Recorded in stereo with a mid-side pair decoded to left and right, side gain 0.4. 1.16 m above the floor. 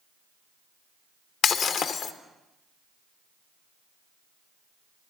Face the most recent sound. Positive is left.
turn(degrees=70)